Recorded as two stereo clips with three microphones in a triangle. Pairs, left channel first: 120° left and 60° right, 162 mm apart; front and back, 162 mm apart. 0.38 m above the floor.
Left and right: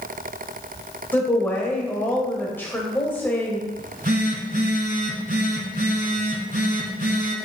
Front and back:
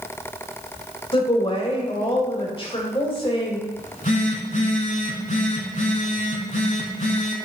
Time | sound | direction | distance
1.1 | a woman speaking | 45° left | 1.2 m
3.8 | a phone buzzing | 35° right | 1.0 m